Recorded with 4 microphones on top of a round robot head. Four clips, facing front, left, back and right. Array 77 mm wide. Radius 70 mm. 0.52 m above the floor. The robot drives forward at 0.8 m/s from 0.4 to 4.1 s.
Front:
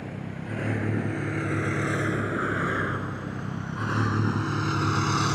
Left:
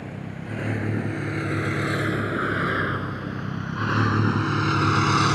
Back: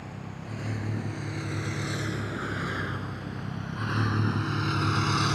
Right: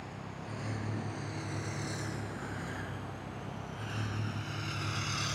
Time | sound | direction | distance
0.0 | a vehicle | 45° left | ?